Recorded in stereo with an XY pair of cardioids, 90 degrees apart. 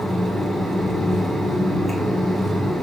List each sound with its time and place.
0.0 s a fan: 30° right, 1.7 m